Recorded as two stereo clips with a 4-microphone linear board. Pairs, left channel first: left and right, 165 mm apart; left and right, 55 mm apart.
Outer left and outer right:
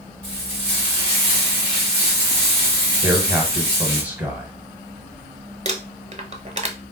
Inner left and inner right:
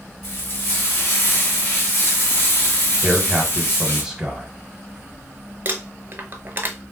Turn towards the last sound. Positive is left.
turn(degrees=-40)  # may be behind; listen again after turning